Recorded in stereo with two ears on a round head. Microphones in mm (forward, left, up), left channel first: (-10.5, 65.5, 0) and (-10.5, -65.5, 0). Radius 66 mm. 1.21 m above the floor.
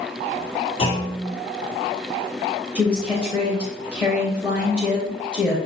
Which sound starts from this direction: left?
A clunk, at 0.8 s.